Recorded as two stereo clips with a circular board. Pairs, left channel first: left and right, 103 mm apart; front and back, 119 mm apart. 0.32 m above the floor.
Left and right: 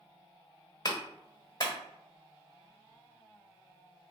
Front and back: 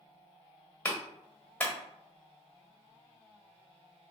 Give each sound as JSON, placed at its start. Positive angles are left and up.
{"t": 0.8, "sound": "a clap", "azimuth_deg": 70, "distance_m": 1.4}